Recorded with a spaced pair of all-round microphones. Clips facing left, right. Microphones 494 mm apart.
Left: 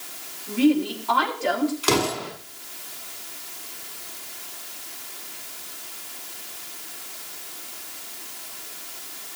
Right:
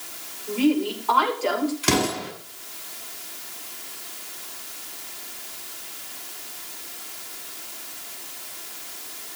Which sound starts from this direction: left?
A woman speaking, at 0.5 s.